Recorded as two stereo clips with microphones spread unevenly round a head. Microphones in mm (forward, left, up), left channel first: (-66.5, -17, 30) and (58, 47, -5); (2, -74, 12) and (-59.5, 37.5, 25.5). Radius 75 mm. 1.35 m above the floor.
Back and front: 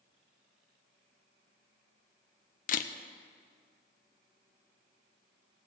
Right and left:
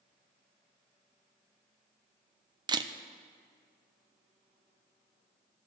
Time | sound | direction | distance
2.7 | a camera shutter | 175° left | 0.6 m